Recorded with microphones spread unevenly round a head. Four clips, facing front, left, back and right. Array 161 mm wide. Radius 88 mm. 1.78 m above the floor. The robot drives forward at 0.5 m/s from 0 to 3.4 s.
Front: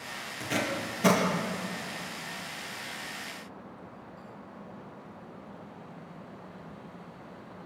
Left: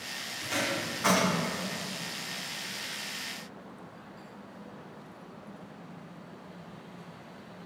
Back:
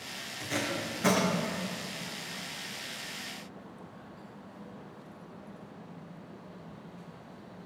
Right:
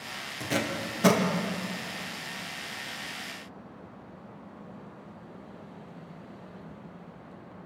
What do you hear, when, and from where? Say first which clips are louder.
0.4 s tape being pulled: right 2 dB, front 2 dB; 85° right, 2 m; by 1.2 s 95° right, 2 m